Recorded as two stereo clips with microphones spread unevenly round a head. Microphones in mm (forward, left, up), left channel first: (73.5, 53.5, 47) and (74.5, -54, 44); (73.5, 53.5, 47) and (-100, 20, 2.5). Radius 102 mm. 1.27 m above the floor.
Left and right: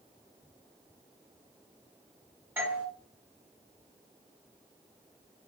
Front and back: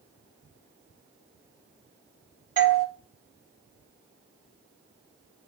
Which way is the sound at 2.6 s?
160° right.